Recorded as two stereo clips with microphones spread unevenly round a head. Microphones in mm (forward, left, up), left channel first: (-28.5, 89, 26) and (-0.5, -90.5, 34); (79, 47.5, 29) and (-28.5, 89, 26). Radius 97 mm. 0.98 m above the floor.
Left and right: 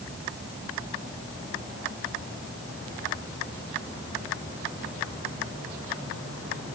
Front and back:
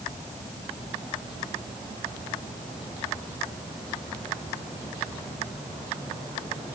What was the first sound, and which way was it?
Only background noise.